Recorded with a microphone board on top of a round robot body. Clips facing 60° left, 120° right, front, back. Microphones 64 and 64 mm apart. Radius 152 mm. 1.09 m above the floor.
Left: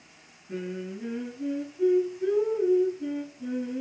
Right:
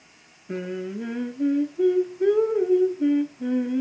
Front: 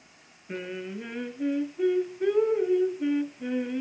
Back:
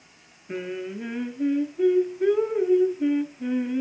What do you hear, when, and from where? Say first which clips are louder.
0.5 s singing: right 4 dB, back 3 dB; 95° right, 0.5 m